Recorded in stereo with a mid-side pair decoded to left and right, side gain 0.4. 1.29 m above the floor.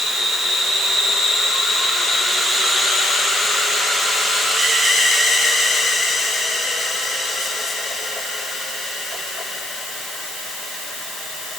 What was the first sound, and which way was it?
Only background noise.